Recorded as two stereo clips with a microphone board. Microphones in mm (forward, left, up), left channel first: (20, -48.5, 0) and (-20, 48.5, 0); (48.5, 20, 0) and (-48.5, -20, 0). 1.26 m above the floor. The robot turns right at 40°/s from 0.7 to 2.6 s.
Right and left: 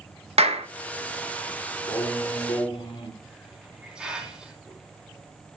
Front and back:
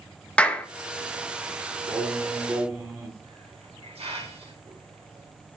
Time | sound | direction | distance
0.4 | a clap | 100° left | 1.1 m
1.9 | singing | 130° right | 3 m
3.2 | a hiss | 165° right | 3.5 m